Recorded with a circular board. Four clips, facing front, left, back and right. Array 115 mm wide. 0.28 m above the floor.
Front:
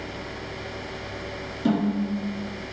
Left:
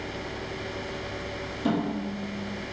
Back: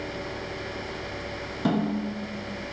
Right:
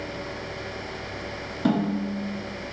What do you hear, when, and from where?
1.6 s a snare drum: 130° right, 0.9 m